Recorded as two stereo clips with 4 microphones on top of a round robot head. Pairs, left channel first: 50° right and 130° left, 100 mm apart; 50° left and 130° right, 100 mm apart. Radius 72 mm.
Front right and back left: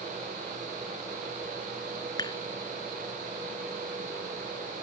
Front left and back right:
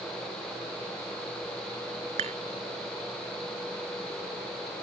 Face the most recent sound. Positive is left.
turn(degrees=-105)